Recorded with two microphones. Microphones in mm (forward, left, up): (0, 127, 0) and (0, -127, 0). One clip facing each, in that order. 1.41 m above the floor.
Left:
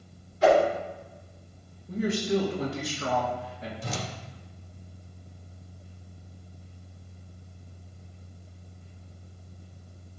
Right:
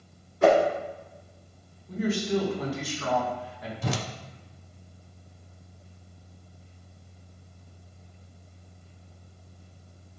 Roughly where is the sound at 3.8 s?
Right.